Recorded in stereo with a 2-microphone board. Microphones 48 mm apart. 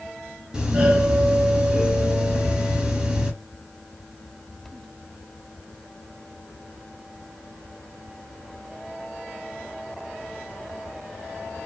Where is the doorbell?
15° right (ahead or behind), 1.9 m.